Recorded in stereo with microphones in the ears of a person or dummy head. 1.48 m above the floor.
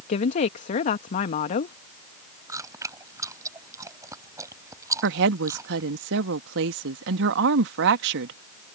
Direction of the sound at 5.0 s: 75° right (ahead or behind).